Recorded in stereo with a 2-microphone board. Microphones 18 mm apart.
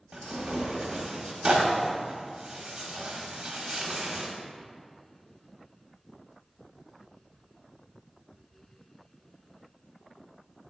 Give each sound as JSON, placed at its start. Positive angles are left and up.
{"t": 0.1, "sound": "tearing paper", "side_deg": -65, "distance_m": 1.6}